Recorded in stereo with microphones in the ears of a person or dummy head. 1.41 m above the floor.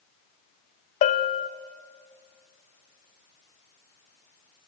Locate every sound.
1.0 s a bell: 35° left (ahead or behind), 0.9 m